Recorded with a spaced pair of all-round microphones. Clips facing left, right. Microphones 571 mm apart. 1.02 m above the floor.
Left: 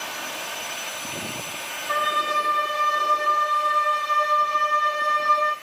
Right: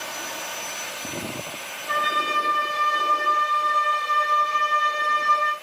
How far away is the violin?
About 1.7 m.